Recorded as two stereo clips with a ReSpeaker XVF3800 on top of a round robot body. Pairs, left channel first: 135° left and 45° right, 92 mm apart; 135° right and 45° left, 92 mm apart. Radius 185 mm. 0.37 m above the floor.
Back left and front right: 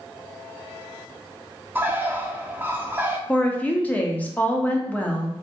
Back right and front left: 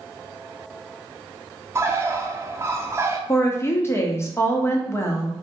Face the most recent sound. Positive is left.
turn(degrees=-165)